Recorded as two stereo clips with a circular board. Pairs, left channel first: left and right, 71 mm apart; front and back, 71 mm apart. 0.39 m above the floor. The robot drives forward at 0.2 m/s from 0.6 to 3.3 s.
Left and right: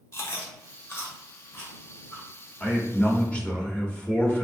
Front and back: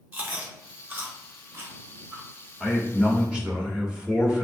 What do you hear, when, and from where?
0.1 s chewing: 125° left, 1.0 m; by 2.3 s 140° left, 1.1 m
2.6 s a man speaking: 105° left, 0.8 m; by 4.5 s 130° left, 0.8 m